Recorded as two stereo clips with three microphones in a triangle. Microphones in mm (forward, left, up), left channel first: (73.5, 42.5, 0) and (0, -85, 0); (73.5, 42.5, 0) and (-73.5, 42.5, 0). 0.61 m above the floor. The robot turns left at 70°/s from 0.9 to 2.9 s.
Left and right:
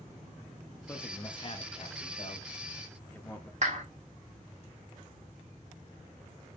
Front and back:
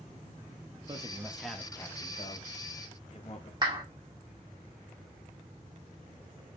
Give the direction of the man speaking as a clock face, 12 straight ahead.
8 o'clock.